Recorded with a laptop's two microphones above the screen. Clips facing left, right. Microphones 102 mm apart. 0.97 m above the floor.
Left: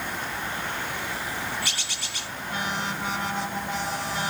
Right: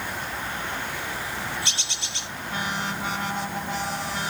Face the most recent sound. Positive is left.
turn(degrees=-25)  # may be behind; listen again after turning